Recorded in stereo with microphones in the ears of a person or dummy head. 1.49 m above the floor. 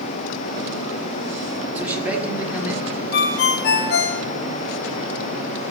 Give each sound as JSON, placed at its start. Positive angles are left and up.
{"t": 1.8, "sound": "a man speaking", "side_deg": -10, "distance_m": 1.5}
{"t": 3.1, "sound": "a ringtone", "side_deg": 60, "distance_m": 0.9}